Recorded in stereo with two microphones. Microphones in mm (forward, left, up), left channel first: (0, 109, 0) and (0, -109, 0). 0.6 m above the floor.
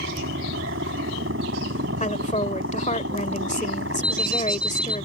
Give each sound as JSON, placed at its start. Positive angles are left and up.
{"t": 0.0, "sound": "a helicopter", "side_deg": -75}
{"t": 2.0, "sound": "a woman speaking", "side_deg": 35}
{"t": 4.0, "sound": "an alarm clock", "side_deg": -60}